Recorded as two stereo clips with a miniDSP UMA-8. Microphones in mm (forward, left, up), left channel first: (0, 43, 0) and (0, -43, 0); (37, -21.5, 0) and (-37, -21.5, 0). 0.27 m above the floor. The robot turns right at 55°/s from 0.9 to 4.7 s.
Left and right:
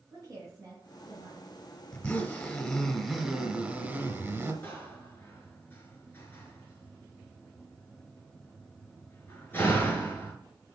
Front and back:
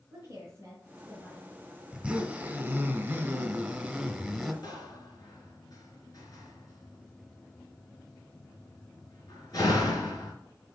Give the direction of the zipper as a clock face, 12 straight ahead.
8 o'clock.